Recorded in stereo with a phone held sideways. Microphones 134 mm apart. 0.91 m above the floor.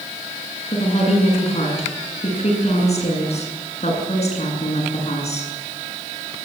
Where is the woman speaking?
55° left (ahead or behind), 8.5 m.